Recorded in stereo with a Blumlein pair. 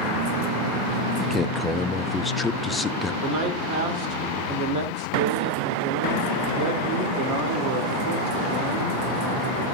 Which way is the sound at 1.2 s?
10° left.